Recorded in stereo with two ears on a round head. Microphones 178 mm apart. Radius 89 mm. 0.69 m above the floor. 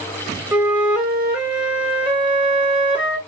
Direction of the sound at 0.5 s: 5° right (ahead or behind).